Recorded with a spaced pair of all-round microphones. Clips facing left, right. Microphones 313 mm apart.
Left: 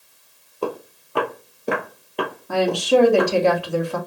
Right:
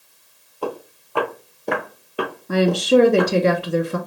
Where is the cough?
No cough in this recording.